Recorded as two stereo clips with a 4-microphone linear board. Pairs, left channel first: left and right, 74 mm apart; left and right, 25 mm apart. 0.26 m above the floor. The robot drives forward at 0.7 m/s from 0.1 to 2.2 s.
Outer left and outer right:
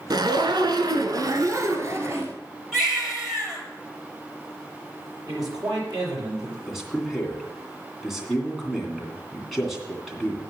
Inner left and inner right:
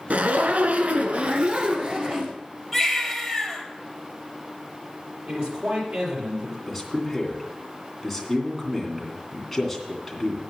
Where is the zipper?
70° right (ahead or behind), 0.9 m; by 2.3 s 35° right (ahead or behind), 1.5 m.